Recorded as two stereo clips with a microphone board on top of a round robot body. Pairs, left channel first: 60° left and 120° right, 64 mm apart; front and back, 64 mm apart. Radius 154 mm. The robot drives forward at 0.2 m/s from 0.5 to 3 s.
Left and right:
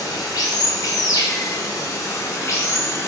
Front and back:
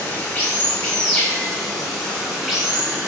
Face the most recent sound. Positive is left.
turn(degrees=105)